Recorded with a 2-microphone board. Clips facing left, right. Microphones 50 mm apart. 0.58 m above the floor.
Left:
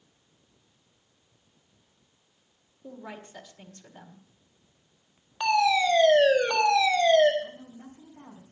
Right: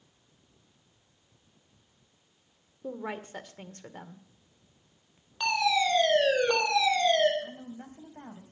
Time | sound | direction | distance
2.8 | a woman speaking | 45° right (ahead or behind) | 1.6 m
5.4 | a fire alarm | 15° left (ahead or behind) | 4 m
7.4 | a woman speaking | 50° right (ahead or behind) | 3 m